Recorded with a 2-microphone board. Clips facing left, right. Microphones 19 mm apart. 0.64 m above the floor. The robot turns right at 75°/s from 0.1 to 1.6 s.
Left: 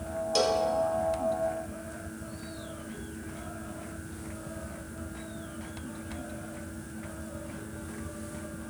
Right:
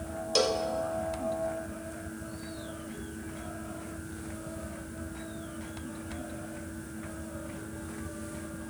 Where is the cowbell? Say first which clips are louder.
Left 1 dB; 10° right (ahead or behind), 0.8 m; by 0.7 s 10° left (ahead or behind), 0.8 m.